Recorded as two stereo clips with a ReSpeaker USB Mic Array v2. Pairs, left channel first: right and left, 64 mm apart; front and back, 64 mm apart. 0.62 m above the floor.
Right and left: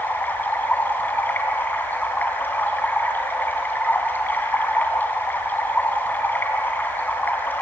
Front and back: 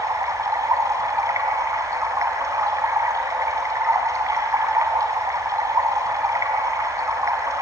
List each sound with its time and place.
0.0 s running water: 150° right, 2.5 m